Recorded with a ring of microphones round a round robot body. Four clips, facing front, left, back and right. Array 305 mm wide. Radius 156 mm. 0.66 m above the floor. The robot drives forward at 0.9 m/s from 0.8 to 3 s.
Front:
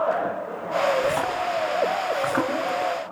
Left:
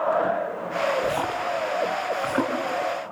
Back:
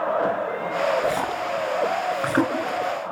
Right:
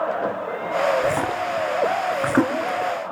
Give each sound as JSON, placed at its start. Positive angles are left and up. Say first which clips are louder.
{"t": 1.0, "sound": "a splash", "louder": "right 3 dB, even", "azimuth_deg": -75, "distance_m": 3.0}